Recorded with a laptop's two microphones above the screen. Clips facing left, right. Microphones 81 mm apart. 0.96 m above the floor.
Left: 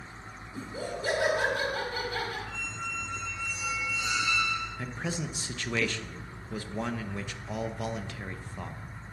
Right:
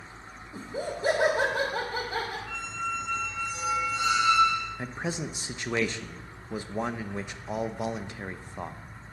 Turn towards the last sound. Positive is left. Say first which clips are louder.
# right 2 dB
turn(degrees=-20)  # may be behind; listen again after turning